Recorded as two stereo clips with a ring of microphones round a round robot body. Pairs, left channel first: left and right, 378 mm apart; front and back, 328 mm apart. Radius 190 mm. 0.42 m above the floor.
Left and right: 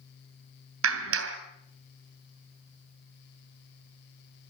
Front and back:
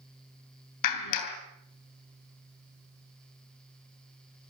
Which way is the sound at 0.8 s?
35° right.